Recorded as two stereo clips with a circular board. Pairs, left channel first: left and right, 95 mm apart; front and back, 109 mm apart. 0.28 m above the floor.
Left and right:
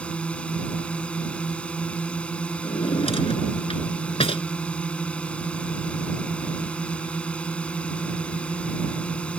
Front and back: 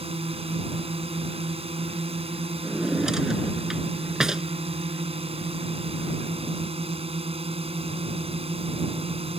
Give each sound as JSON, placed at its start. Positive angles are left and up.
{"t": 0.0, "sound": "a drone", "azimuth_deg": 165}
{"t": 2.6, "sound": "a drawer", "azimuth_deg": 95}